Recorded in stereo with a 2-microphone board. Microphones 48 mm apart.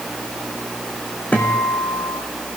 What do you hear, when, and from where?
1.3 s a guitar: 30° left (ahead or behind), 4.5 m